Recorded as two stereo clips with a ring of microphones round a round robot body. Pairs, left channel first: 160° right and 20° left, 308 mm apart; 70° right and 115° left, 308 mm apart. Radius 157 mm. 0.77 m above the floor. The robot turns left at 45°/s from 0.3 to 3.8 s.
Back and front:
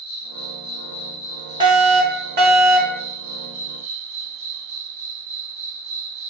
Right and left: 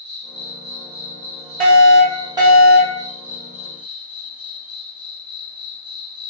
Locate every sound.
0.0 s an insect: 155° right, 1.5 m; by 6.3 s 45° left, 1.5 m
1.6 s a fire alarm: 85° left, 1.5 m; by 3.0 s 20° left, 1.5 m